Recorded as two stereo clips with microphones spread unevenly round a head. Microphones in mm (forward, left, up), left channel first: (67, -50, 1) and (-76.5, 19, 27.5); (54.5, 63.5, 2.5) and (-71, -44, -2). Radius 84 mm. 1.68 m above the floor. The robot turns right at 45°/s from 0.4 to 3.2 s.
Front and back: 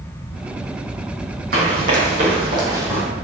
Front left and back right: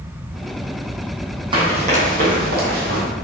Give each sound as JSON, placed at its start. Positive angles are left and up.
{"t": 1.5, "sound": "running footsteps", "azimuth_deg": 160, "distance_m": 3.5}